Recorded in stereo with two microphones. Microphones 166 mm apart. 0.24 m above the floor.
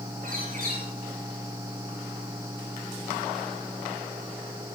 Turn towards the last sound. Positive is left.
turn(degrees=-65)  # may be behind; listen again after turning